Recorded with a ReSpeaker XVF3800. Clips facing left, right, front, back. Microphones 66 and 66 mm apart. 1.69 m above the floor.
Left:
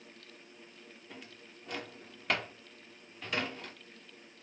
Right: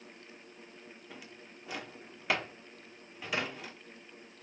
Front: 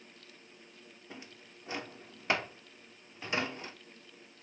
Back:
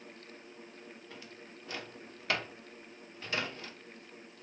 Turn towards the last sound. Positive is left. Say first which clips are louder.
# left 1 dB, back 1 dB
turn(degrees=-10)